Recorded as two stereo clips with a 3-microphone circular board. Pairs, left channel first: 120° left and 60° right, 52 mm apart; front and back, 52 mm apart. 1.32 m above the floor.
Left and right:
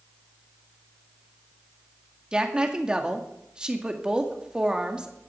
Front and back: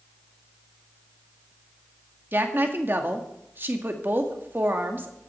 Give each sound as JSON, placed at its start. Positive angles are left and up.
{"t": 2.3, "sound": "a woman speaking", "azimuth_deg": -130, "distance_m": 2.0}